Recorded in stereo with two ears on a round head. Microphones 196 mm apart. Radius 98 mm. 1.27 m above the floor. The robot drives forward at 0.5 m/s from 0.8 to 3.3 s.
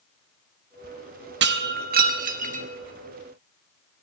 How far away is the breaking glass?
About 1.0 m.